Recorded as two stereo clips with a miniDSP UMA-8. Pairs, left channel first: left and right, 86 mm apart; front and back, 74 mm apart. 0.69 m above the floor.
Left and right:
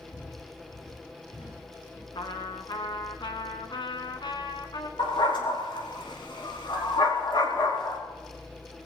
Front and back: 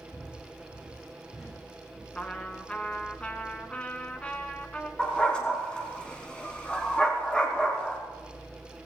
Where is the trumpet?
70° left, 1.7 m.